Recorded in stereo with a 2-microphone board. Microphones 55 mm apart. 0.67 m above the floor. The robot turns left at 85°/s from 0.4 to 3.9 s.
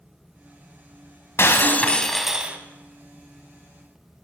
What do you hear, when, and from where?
1.4 s breaking glass: 70° left, 0.8 m; by 2.6 s 30° right, 0.8 m